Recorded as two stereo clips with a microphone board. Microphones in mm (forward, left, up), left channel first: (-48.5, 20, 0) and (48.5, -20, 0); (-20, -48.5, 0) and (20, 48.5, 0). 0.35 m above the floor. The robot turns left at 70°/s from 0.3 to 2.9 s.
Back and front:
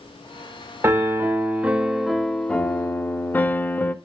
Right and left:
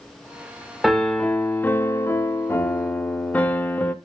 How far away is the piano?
About 0.5 m.